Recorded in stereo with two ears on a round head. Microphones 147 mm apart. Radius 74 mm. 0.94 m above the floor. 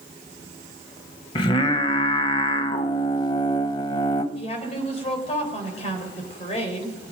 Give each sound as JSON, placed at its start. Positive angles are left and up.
{"t": 1.4, "sound": "singing", "side_deg": 30, "distance_m": 0.9}
{"t": 4.3, "sound": "a woman speaking", "side_deg": 40, "distance_m": 3.5}